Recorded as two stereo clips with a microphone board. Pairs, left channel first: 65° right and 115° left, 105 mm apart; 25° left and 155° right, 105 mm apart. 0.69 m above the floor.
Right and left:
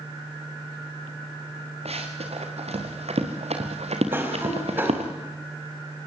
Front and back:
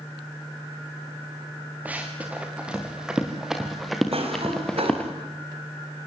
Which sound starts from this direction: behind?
A cough, at 4.1 s.